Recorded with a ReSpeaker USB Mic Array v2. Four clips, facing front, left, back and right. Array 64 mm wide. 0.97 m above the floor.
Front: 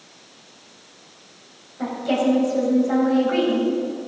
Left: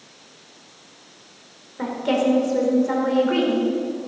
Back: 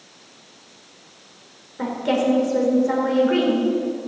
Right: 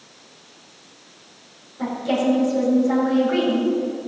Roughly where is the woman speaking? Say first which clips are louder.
Left 1 dB, even; behind left.